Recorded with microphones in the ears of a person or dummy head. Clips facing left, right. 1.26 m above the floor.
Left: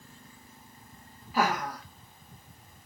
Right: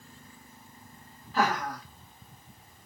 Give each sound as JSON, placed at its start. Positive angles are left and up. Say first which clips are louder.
{"t": 1.3, "sound": "laughter", "louder": "even", "side_deg": 15, "distance_m": 0.7}